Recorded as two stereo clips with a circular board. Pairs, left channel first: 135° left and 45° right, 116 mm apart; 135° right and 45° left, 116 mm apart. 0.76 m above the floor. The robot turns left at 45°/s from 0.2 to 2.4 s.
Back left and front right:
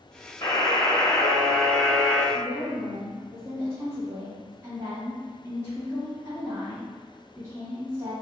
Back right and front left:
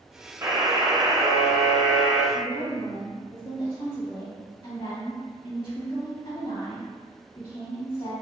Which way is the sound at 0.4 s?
95° left.